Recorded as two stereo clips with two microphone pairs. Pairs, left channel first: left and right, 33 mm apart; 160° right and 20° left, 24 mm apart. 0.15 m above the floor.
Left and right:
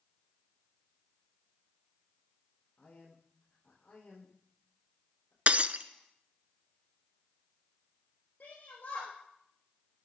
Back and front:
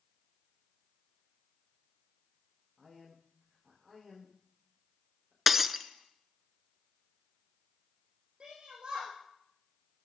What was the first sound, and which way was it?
A man speaking, 115° left.